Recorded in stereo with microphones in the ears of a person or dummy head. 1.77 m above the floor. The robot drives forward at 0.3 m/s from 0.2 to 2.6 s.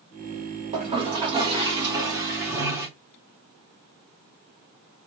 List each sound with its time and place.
0.7 s a toilet flushing: 35° right (ahead or behind), 0.8 m; by 2.9 s 20° right (ahead or behind), 1.2 m